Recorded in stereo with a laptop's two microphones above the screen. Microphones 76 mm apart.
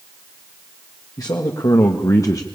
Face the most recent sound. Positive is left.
turn(degrees=45)  # may be behind; listen again after turning